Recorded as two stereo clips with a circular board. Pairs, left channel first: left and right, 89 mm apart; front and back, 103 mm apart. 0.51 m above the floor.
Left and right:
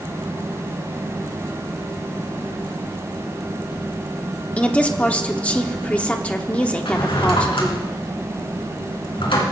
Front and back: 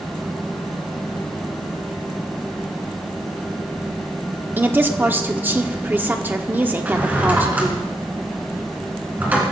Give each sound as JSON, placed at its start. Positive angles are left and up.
{"t": 4.6, "sound": "a woman speaking", "azimuth_deg": 145, "distance_m": 1.1}
{"t": 6.8, "sound": "a drawer", "azimuth_deg": 105, "distance_m": 3.5}